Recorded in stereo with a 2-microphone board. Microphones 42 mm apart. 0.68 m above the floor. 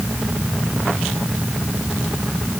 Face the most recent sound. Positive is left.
No sound to turn to.